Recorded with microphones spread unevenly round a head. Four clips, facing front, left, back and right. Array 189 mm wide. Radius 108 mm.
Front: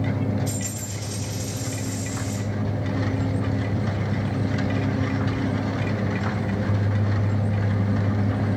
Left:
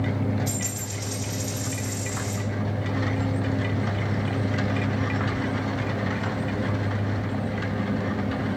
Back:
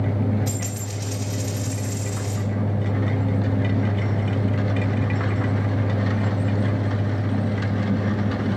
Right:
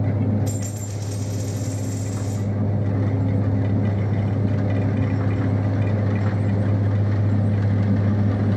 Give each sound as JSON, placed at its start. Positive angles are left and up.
{"t": 0.5, "sound": "a dropped coin", "azimuth_deg": -165, "distance_m": 4.5}